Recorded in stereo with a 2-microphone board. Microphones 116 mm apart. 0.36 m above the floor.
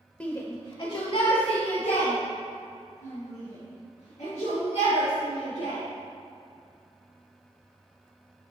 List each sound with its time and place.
0.2 s a shout: 10° left (ahead or behind), 0.9 m; by 5.8 s 70° left (ahead or behind), 6.5 m